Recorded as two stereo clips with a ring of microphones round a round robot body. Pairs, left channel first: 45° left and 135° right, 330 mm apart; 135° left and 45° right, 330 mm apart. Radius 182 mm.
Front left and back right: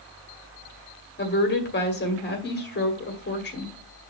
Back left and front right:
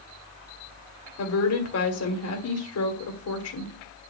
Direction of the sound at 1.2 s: 100° left.